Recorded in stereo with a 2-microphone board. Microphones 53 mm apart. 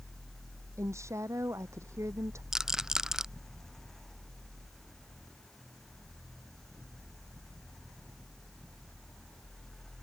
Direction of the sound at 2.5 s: 10° right (ahead or behind).